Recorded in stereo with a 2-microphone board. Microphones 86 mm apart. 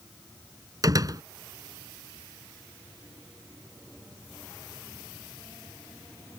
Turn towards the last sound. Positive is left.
turn(degrees=-45)  # may be behind; listen again after turning